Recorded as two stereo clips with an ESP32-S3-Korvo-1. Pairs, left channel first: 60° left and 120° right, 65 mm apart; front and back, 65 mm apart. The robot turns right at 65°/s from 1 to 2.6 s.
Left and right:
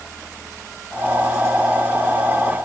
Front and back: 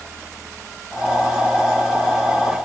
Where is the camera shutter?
No camera shutter in this recording.